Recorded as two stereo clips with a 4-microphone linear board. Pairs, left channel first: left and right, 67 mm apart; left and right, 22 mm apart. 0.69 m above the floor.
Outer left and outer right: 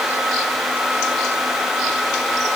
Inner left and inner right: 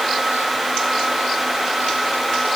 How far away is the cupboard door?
I don't hear a cupboard door.